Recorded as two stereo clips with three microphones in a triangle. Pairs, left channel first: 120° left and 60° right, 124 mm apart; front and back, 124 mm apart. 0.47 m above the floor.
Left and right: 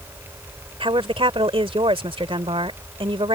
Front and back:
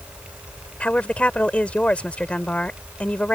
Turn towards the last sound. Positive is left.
turn(degrees=-75)